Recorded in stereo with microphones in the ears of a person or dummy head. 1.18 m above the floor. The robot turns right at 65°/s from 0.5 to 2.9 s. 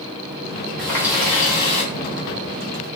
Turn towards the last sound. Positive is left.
turn(degrees=110)